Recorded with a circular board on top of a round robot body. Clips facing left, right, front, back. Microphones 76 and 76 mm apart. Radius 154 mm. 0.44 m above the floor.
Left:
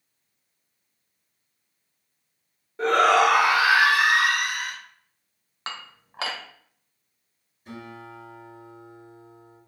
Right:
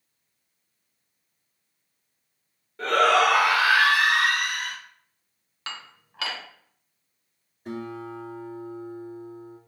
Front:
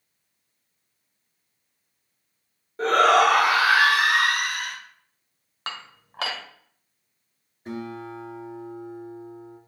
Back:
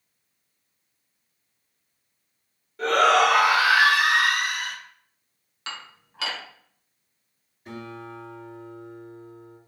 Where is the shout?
35° left, 2 m; by 4.8 s 15° left, 3.5 m.